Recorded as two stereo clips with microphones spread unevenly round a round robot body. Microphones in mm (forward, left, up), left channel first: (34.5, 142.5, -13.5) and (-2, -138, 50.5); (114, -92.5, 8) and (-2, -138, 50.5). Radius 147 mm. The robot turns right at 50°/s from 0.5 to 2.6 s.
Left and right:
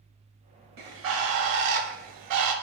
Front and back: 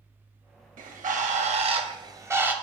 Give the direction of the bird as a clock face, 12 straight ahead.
5 o'clock.